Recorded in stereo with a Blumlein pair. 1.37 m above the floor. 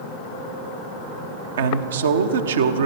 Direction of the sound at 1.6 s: 65° right.